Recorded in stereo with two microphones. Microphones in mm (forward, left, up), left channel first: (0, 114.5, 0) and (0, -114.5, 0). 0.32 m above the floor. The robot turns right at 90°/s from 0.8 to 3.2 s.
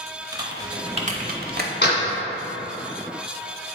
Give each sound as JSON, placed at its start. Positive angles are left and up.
{"t": 0.3, "sound": "typing on a keyboard", "side_deg": -15, "distance_m": 0.8}
{"t": 1.8, "sound": "a door slam", "side_deg": 45, "distance_m": 2.0}